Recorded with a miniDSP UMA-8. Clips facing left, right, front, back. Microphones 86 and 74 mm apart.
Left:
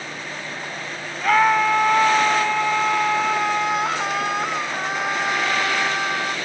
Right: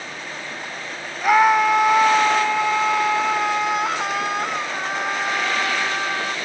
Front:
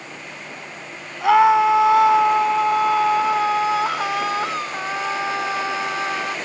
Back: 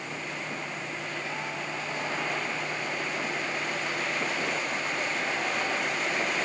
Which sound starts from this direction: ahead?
A scream, at 1.2 s.